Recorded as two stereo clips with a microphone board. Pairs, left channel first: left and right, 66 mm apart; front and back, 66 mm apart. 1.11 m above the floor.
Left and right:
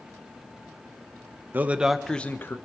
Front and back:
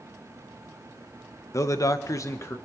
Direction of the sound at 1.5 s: 30° right.